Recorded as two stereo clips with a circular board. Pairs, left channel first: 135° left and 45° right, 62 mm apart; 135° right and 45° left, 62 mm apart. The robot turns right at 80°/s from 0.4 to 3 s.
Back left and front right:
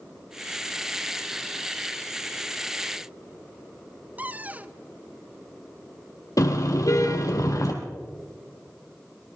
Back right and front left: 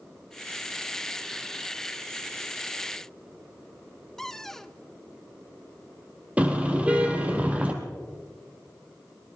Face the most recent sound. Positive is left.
turn(degrees=115)